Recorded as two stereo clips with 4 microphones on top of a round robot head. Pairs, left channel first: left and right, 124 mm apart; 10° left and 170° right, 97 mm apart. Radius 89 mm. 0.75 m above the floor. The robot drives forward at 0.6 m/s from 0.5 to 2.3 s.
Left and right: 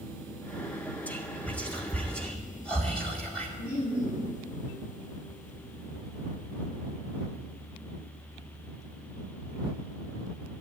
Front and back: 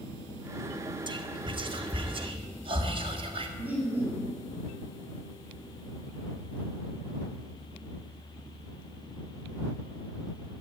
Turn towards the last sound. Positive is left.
turn(degrees=120)